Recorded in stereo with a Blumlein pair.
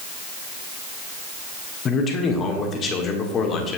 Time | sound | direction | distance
1.9 | a man speaking | 25° left | 1.5 m